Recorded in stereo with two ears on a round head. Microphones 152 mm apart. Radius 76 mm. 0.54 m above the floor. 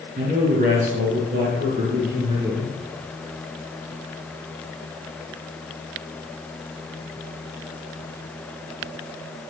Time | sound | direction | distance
0.2 | a man speaking | 55° right (ahead or behind) | 5 m